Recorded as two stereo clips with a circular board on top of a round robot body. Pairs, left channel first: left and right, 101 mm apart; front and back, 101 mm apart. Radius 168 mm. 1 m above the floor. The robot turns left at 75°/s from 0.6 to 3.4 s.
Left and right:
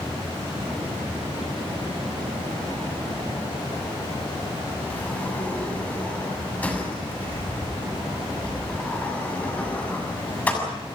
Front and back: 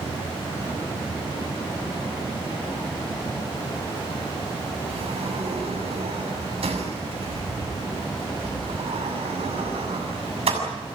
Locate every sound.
4.9 s a sliding door: 165° left, 6.5 m